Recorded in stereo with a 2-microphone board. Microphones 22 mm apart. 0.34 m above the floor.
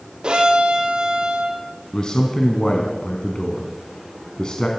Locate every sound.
0.2 s a violin: 55° right (ahead or behind), 3.5 m
1.9 s a man speaking: 45° left (ahead or behind), 3.5 m